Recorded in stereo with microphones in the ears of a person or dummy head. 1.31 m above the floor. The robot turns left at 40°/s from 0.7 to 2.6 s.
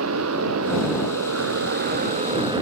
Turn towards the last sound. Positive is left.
turn(degrees=-160)